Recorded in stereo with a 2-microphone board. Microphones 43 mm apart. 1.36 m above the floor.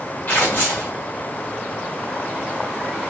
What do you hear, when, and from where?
0.3 s tearing paper: 40° left (ahead or behind), 1.8 m